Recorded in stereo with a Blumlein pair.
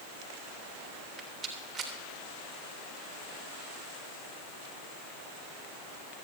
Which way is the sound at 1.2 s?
15° right.